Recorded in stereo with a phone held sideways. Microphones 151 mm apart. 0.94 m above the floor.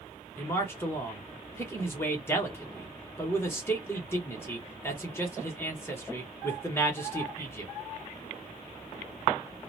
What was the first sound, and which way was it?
A man speaking, 15° left (ahead or behind).